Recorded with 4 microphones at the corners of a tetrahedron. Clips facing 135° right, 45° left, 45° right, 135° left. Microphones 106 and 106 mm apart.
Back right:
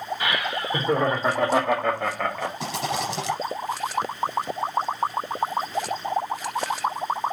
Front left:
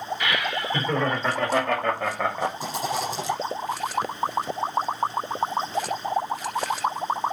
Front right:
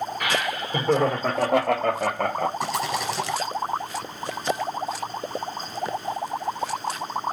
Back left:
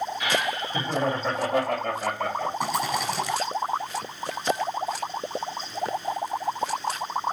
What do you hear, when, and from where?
0.2 s laughter: 75° right, 3 m; by 2.5 s 20° right, 0.9 m
2.6 s a rattle: 135° right, 2 m